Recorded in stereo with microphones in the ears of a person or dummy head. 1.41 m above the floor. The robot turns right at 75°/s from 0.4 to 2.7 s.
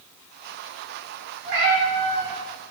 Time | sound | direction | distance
1.4 | a cat meowing | 95° right | 1.3 m